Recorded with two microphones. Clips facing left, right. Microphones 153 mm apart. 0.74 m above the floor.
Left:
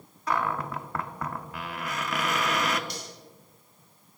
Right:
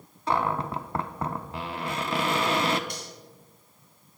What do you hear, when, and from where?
0.3 s a cupboard door: 30° right (ahead or behind), 0.6 m
2.9 s cutlery clinking: 50° right (ahead or behind), 4 m